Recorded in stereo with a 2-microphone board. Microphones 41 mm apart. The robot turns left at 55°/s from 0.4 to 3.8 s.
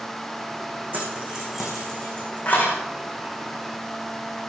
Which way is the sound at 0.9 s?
45° right (ahead or behind).